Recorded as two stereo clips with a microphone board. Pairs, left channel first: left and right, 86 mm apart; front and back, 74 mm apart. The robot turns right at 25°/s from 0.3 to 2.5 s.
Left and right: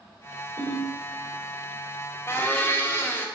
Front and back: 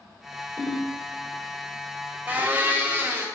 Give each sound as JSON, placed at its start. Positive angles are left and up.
{"t": 0.6, "sound": "a ringtone", "azimuth_deg": -55, "distance_m": 2.5}
{"t": 2.3, "sound": "a blender", "azimuth_deg": 130, "distance_m": 0.6}